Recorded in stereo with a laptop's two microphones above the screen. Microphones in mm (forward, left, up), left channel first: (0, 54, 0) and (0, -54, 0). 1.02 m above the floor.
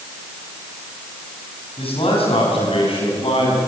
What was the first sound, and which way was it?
A man speaking, 60° left (ahead or behind).